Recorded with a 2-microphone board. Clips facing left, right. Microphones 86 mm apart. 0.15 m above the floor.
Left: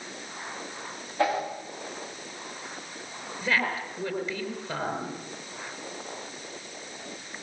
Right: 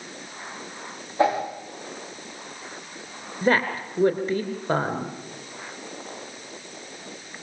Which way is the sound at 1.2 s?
20° right (ahead or behind).